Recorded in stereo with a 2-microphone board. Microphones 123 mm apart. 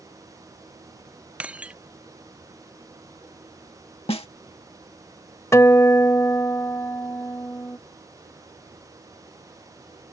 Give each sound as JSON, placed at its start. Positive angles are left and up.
{"t": 1.4, "sound": "breaking glass", "side_deg": -10}
{"t": 4.1, "sound": "a snare drum", "side_deg": 55}
{"t": 5.5, "sound": "a guitar", "side_deg": 25}